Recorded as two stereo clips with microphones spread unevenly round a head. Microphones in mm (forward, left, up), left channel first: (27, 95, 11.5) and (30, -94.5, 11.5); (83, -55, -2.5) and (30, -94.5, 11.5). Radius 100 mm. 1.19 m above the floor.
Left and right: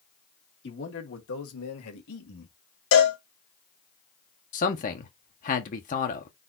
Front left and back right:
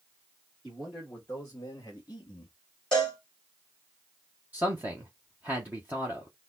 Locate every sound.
0.6 s a man speaking: 130° left, 1.8 m; by 2.6 s 80° left, 1.8 m
2.9 s a cowbell: 125° left, 1.8 m
4.5 s a man speaking: 135° left, 1.0 m